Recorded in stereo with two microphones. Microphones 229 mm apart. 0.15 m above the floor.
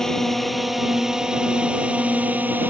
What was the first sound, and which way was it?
A drone, centre (ahead or behind).